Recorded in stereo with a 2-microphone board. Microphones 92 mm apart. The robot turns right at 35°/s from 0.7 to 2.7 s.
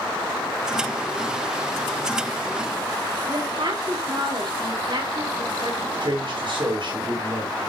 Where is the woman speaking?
60° right (ahead or behind), 3 m.